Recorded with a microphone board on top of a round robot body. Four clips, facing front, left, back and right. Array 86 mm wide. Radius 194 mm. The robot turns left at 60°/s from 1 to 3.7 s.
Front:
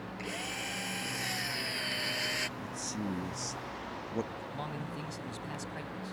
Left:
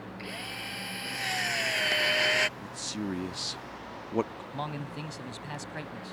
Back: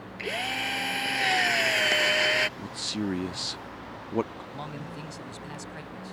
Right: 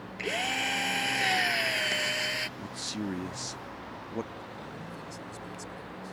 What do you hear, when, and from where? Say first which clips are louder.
0.2 s a drill: right 12 dB, back 10 dB; 135° right; by 2.5 s 140° left
2.6 s a man speaking: even, back 5 dB; 155° right; by 4.4 s 140° left
4.5 s a man speaking: left 5 dB, back 2 dB; 90° left